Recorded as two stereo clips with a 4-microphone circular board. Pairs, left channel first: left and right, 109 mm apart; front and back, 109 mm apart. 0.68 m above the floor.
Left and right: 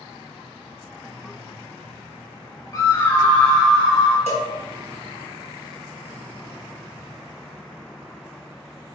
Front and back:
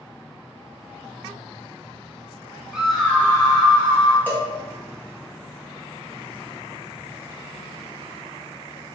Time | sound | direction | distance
2.7 | a scream | 110° left | 0.7 m
4.3 | a cowbell | 75° right | 1.0 m